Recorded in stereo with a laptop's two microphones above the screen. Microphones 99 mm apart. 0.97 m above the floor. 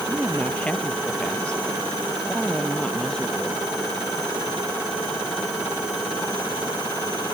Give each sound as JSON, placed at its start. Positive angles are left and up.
{"t": 0.1, "sound": "a woman speaking", "side_deg": 15}